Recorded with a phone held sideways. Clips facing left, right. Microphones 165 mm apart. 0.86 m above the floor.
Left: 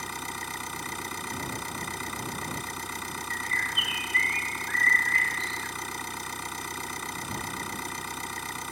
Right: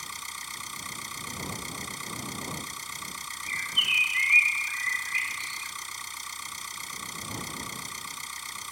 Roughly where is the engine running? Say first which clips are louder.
Left 9 dB; left.